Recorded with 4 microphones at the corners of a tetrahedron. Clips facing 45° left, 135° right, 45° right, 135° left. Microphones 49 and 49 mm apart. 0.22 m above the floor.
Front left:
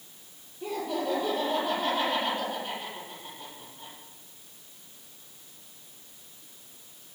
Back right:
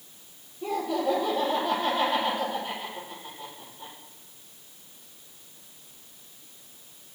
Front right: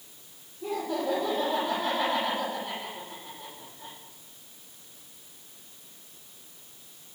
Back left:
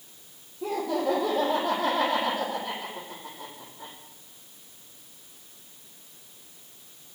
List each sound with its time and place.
0.6 s laughter: 125° left, 8 m